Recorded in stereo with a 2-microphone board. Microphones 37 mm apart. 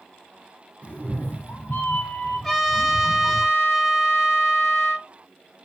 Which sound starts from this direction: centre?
A trumpet, at 2.4 s.